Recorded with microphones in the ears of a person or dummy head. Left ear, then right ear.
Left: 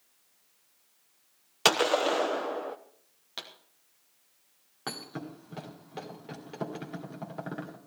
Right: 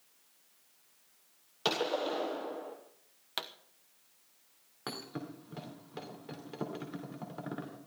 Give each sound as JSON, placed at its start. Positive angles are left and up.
{"t": 1.6, "sound": "a gunshot", "side_deg": 60, "distance_m": 1.0}
{"t": 3.4, "sound": "a pop", "side_deg": -30, "distance_m": 1.0}
{"t": 4.9, "sound": "a thud", "side_deg": 5, "distance_m": 2.5}